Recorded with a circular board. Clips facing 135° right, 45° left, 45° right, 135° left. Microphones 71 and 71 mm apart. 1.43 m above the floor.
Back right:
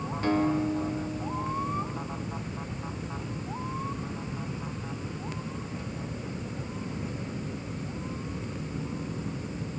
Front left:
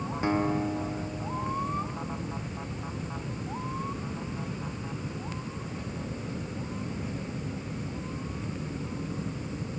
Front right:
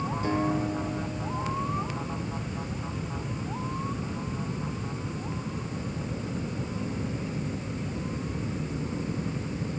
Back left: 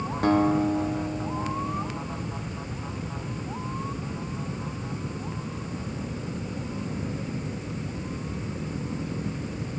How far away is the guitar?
About 3 m.